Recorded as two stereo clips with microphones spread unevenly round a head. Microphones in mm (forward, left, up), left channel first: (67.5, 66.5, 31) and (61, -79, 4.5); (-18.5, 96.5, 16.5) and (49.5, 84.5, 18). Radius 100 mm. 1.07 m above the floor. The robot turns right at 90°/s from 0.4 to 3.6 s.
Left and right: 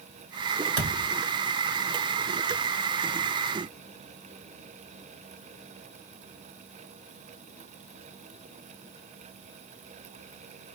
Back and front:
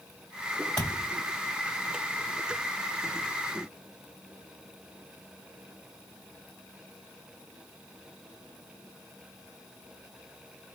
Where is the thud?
105° right, 2.5 m; by 1.1 s 75° right, 2.5 m.